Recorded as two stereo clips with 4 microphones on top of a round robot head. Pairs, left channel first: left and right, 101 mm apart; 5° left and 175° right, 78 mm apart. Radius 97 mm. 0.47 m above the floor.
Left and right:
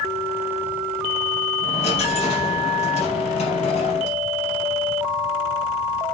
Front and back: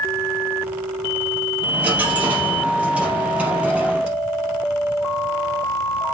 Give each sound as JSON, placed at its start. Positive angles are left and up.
{"t": 1.6, "sound": "a dropped coin", "azimuth_deg": 110, "distance_m": 3.5}